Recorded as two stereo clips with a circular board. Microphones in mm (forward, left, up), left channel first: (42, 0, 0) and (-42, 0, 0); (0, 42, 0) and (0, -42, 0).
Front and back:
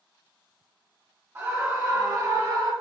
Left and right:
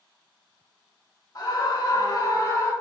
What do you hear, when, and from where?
1.4 s a scream: 125° left, 2.5 m; by 2.7 s 140° left, 4 m